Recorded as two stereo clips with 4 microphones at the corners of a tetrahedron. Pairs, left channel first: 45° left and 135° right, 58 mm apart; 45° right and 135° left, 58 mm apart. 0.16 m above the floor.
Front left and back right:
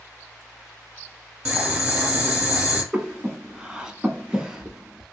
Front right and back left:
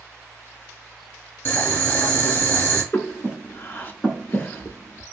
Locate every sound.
1.4 s boiling: 75° right, 1.2 m
2.9 s breathing: 65° right, 0.7 m